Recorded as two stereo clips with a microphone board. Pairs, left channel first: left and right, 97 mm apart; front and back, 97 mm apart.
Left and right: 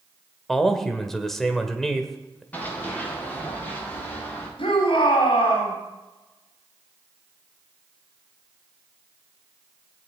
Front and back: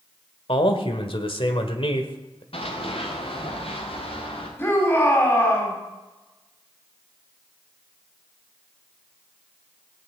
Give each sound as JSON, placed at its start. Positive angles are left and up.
{"t": 0.5, "sound": "a man speaking", "azimuth_deg": 0, "distance_m": 1.7}
{"t": 2.5, "sound": "running footsteps", "azimuth_deg": 15, "distance_m": 4.0}
{"t": 4.6, "sound": "a shout", "azimuth_deg": 65, "distance_m": 4.0}